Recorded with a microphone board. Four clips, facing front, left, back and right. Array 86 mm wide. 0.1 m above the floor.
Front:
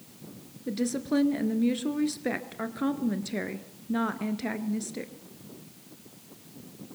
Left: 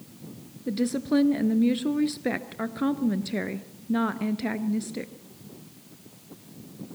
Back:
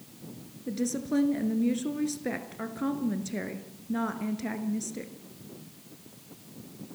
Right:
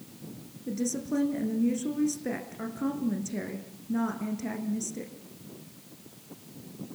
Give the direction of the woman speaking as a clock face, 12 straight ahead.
10 o'clock.